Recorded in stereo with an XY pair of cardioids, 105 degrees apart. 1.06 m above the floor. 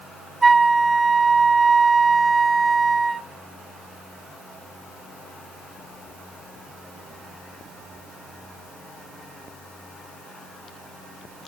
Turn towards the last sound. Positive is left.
turn(degrees=-30)